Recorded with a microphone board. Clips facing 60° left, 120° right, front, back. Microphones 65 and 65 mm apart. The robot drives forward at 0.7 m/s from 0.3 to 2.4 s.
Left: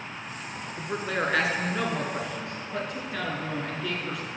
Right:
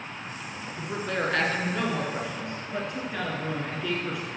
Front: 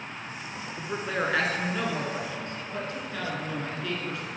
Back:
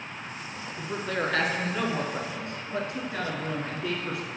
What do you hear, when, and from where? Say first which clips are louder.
0.8 s a man speaking: even, even; 30° left, 1.5 m; by 4.2 s 150° left, 1.5 m